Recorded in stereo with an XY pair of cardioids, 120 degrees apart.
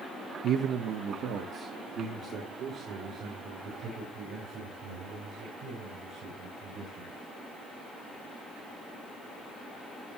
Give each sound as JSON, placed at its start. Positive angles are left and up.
{"t": 0.4, "sound": "a man speaking", "azimuth_deg": -65, "distance_m": 0.6}